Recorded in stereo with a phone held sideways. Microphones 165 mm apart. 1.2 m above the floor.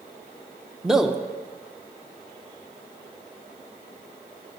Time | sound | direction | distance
0.8 | a man speaking | 5° right (ahead or behind) | 0.5 m